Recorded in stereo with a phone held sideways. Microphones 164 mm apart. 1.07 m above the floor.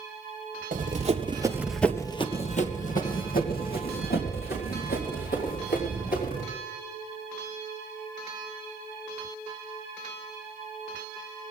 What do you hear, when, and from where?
0.7 s running footsteps: 55° right (ahead or behind), 1.7 m; by 6.4 s 80° left, 6 m